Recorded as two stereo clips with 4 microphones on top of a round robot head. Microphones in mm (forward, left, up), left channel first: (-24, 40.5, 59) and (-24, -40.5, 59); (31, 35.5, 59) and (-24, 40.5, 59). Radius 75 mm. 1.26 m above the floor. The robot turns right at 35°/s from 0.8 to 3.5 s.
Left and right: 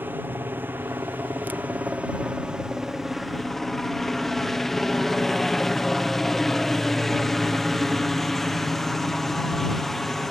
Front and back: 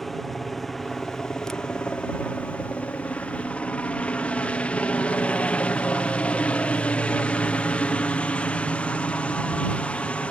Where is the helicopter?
85° right; by 10.3 s 10° left.